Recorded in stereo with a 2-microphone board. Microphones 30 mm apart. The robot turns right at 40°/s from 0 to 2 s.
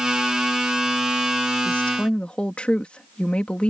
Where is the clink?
I don't hear a clink.